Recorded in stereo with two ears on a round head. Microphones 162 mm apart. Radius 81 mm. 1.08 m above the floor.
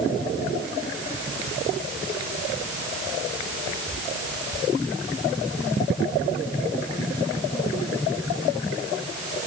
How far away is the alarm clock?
I don't hear an alarm clock.